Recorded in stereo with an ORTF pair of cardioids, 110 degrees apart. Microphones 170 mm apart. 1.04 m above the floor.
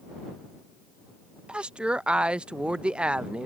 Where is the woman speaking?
5° right.